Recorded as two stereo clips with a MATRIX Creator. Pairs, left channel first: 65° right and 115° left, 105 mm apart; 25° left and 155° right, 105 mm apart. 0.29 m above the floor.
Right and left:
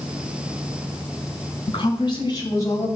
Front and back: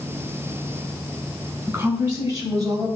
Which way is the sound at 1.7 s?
100° right.